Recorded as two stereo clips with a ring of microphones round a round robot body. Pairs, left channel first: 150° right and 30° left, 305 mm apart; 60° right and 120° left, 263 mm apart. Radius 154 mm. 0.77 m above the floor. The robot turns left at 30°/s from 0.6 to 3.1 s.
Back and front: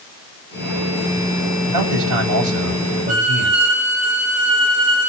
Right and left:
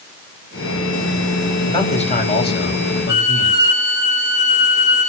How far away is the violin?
About 8 m.